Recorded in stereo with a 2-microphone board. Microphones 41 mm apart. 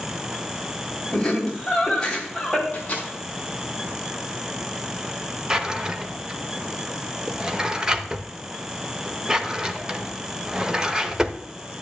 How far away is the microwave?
About 4.5 m.